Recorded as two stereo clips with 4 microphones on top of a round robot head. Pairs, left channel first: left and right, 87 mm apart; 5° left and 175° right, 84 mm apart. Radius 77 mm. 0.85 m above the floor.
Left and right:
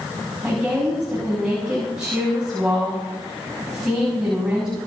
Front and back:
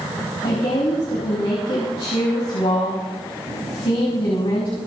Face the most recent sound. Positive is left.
turn(degrees=-10)